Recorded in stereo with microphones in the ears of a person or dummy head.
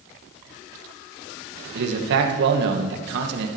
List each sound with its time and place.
1.8 s a man speaking: 70° right (ahead or behind), 1.7 m